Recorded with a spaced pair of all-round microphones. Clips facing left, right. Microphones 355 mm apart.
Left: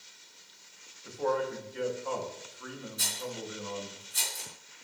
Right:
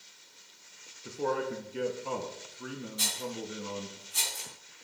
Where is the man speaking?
40° right (ahead or behind), 0.9 m.